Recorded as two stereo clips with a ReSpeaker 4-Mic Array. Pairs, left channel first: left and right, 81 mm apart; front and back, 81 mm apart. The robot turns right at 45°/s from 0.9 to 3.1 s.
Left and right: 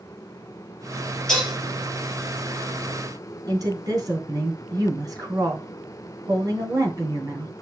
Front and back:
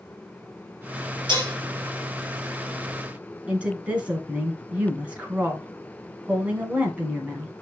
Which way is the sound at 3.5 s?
110° right.